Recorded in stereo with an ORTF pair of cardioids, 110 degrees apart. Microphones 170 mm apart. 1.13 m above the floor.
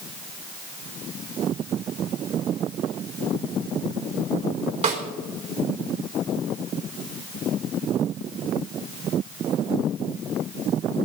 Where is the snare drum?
40° right, 4 m.